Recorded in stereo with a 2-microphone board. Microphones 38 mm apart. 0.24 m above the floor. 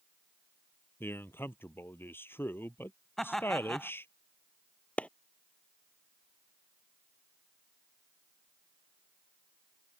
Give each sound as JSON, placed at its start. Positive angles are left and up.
{"t": 1.0, "sound": "a man speaking", "side_deg": 75}
{"t": 3.2, "sound": "laughter", "side_deg": 10}
{"t": 5.0, "sound": "a clap", "side_deg": 35}